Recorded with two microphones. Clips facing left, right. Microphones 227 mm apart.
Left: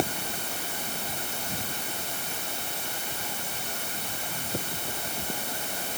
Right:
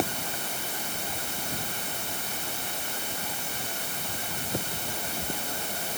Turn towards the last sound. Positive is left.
No sound to turn to.